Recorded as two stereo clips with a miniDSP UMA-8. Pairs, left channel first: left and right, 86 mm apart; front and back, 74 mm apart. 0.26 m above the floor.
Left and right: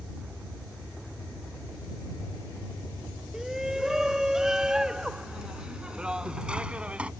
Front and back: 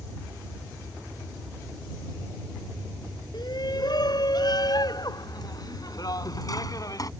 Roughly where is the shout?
Ahead.